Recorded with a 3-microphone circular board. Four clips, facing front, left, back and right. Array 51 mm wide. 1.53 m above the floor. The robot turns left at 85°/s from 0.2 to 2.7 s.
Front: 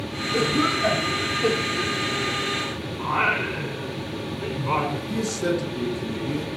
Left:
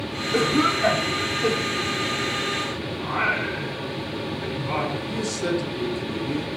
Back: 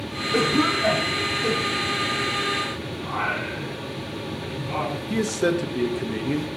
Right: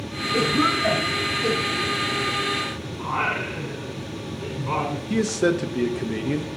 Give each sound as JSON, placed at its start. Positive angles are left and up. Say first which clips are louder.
{"t": 0.3, "sound": "a cough", "louder": "even, back 1 dB", "azimuth_deg": 130, "distance_m": 3.5}
{"t": 3.0, "sound": "singing", "louder": "left 1 dB, front 5 dB", "azimuth_deg": -25, "distance_m": 6.0}
{"t": 5.1, "sound": "a man speaking", "louder": "right 8 dB, back 4 dB", "azimuth_deg": -125, "distance_m": 1.9}